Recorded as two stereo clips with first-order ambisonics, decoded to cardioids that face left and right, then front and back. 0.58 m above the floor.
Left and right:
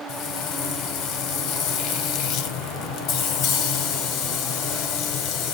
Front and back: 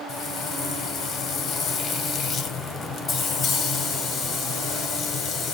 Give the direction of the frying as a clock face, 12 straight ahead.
10 o'clock.